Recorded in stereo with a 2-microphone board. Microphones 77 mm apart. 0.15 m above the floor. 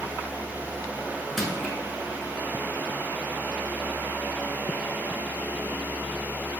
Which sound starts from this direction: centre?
Crushing, at 1.4 s.